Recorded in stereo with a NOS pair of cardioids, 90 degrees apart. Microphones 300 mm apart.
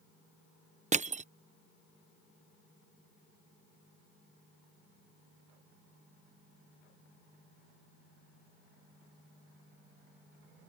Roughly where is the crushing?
Ahead right.